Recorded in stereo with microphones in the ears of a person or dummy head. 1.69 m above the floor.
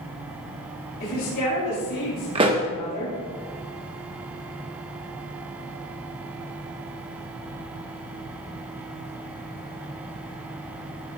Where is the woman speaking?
55° left (ahead or behind), 4 m.